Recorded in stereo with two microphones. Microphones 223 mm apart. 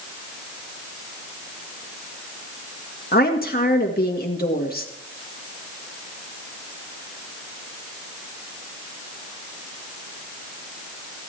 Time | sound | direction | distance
3.1 | a woman speaking | 45° left (ahead or behind) | 1.9 m